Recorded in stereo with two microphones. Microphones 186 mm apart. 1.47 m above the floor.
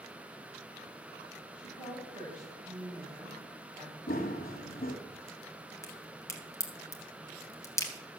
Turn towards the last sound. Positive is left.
turn(degrees=15)  # may be behind; listen again after turning